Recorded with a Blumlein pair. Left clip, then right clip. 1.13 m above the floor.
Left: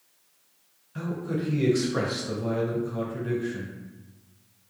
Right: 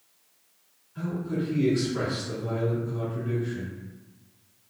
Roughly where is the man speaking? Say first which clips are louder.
Even; ahead left.